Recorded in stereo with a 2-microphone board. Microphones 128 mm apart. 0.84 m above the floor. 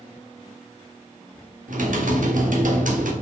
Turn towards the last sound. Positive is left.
turn(degrees=-90)